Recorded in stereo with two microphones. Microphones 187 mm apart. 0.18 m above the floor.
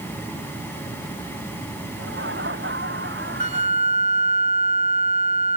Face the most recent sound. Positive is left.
turn(degrees=-35)  # may be behind; listen again after turning